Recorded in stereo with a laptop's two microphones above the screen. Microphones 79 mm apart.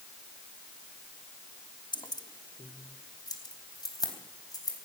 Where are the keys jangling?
70° left (ahead or behind), 0.9 m; by 4.8 s 55° left (ahead or behind), 4 m.